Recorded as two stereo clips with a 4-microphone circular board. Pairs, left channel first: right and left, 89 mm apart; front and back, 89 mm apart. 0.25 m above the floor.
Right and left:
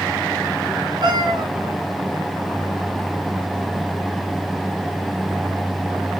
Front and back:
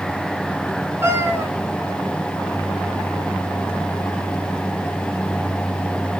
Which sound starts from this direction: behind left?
A cat meowing, at 1.0 s.